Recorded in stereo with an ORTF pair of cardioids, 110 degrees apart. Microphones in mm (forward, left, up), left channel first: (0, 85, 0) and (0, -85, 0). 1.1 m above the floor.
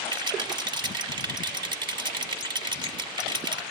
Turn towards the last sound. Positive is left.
turn(degrees=-25)